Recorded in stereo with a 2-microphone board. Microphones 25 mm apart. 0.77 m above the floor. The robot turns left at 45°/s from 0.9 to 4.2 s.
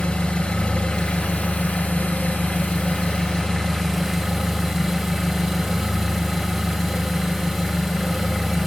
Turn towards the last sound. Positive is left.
turn(degrees=0)